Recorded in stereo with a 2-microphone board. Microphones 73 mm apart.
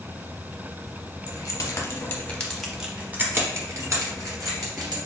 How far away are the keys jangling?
About 1.2 m.